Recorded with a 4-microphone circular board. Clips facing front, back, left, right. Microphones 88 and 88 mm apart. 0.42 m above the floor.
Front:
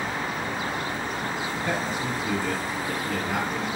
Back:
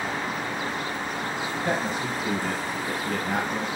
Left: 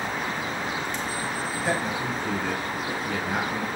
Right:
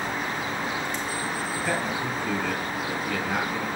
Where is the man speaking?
155° left, 2 m.